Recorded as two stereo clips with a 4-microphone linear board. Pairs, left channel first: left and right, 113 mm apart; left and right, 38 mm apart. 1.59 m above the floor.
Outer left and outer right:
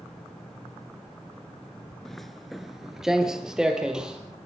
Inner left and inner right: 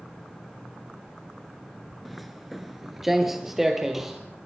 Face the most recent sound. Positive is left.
turn(degrees=-5)  # may be behind; listen again after turning